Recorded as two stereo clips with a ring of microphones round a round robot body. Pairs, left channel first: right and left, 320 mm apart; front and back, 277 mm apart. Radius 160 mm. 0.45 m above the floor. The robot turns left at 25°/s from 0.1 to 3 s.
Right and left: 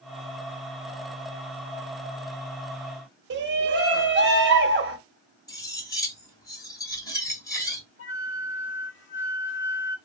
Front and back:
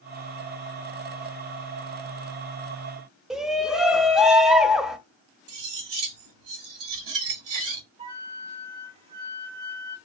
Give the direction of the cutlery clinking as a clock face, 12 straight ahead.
6 o'clock.